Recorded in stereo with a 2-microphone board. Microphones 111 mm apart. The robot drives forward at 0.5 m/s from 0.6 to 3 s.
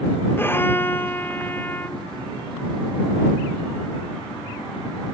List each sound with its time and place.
0.4 s a violin: 20° left (ahead or behind); by 2.0 s 15° left (ahead or behind)